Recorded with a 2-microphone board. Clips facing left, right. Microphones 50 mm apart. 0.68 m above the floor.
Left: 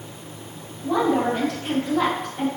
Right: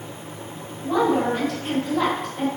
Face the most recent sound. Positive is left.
turn(degrees=5)  # may be behind; listen again after turning